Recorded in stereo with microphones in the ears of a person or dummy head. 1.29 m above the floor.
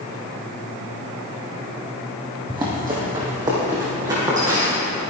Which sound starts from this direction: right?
Running footsteps, at 2.5 s.